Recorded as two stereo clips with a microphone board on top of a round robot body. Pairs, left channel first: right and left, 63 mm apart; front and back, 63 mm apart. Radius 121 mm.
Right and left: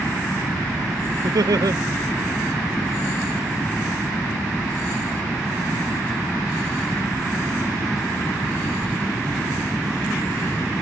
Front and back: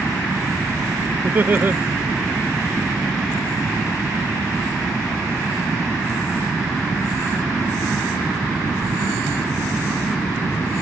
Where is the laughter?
120° left.